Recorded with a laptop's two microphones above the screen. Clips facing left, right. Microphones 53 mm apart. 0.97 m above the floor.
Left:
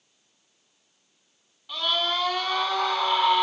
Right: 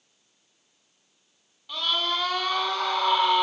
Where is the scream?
Centre (ahead or behind), 3.5 m.